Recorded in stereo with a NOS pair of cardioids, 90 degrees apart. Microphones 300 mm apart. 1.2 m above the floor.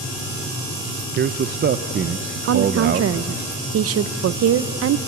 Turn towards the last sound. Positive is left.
turn(degrees=-50)